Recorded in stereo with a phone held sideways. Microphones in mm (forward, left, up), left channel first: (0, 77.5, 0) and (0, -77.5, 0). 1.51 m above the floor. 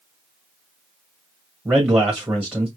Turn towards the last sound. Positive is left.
turn(degrees=-10)  # may be behind; listen again after turning